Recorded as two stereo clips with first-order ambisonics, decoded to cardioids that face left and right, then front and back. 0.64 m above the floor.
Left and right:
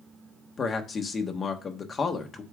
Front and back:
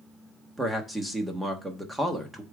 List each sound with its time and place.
0.6 s a man speaking: 105° left, 1.0 m